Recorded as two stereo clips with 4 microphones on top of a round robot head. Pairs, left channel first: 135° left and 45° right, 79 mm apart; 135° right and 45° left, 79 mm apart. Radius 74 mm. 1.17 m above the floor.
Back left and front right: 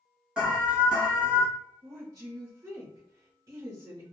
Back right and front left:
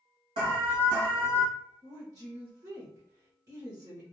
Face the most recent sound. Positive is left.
turn(degrees=-5)